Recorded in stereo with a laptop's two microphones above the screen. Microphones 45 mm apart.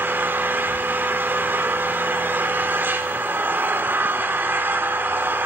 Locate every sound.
0.0 s an engine running: 50° right (ahead or behind), 2.5 m